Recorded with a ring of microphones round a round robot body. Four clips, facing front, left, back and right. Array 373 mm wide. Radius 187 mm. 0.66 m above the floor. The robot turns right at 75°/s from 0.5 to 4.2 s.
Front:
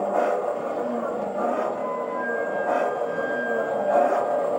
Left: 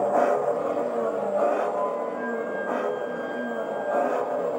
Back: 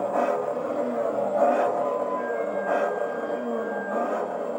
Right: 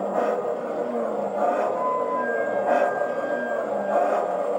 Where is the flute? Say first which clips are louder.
Right 3 dB, back 2 dB; 110° right, 1.9 m; by 4.5 s 75° left, 1.9 m.